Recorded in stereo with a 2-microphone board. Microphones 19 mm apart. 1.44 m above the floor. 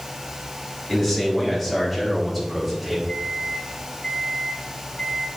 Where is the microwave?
25° left (ahead or behind), 4 m.